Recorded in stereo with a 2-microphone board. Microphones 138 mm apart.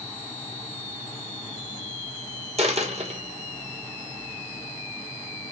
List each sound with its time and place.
2.6 s a dropped coin: 55° right (ahead or behind), 0.9 m